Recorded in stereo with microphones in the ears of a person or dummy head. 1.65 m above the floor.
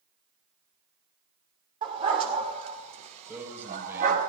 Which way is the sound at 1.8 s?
30° right (ahead or behind).